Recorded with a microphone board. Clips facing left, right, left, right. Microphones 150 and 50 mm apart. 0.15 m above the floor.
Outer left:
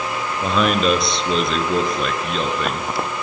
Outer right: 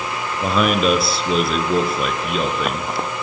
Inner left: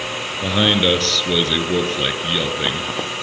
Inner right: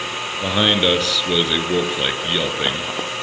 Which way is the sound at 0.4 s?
5° right (ahead or behind).